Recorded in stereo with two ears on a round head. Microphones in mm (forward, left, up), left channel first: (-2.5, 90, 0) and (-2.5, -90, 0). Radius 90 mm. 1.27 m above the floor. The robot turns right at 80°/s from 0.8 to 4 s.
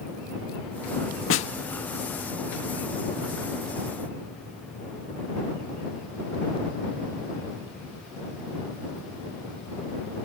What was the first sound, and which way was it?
A snare drum, 75° left (ahead or behind).